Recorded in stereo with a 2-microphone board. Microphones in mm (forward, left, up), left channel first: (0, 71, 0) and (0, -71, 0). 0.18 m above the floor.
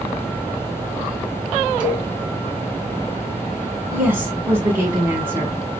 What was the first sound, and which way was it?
A cowbell, 10° right (ahead or behind).